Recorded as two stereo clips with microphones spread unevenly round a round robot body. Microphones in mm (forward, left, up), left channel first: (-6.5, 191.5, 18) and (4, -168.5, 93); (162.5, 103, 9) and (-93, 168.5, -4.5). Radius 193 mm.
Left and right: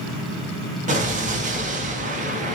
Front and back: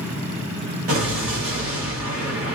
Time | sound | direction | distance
0.9 | an explosion | 165° right | 1.0 m